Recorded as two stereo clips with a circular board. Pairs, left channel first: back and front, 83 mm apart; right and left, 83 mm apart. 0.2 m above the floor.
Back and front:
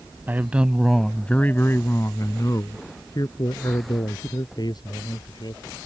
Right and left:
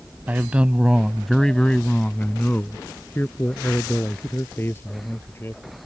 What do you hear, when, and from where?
0.3 s a man speaking: 40° left; by 5.6 s 150° right